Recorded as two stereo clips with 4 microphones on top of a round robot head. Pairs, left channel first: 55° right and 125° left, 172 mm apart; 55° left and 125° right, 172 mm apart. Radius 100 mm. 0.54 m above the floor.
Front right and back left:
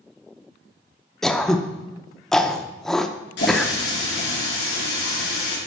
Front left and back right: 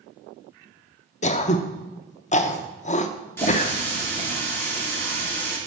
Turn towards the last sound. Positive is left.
turn(degrees=-25)